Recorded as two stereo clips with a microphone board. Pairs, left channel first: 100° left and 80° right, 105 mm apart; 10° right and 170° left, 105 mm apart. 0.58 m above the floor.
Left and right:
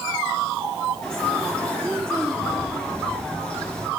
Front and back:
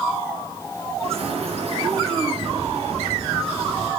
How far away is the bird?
About 3 m.